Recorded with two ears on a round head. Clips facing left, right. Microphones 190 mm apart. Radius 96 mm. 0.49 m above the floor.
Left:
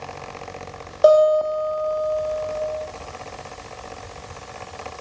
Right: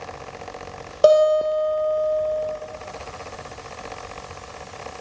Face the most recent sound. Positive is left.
turn(degrees=-35)  # may be behind; listen again after turning